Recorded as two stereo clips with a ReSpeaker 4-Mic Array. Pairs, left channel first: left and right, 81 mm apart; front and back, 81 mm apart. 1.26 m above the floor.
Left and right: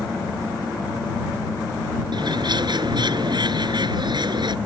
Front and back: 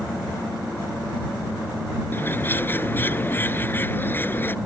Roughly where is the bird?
Ahead right.